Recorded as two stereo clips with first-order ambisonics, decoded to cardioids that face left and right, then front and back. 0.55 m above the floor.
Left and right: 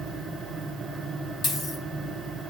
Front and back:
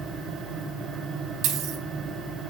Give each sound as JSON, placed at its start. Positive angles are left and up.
{"t": 1.4, "sound": "a dropped coin", "azimuth_deg": 150, "distance_m": 2.0}